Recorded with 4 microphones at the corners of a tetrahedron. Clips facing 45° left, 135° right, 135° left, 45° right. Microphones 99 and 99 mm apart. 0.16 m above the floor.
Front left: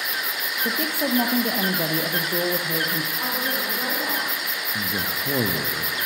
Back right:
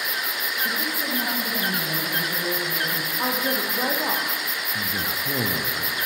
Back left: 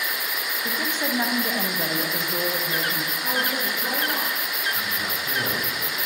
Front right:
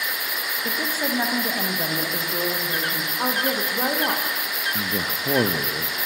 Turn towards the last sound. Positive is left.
turn(degrees=-20)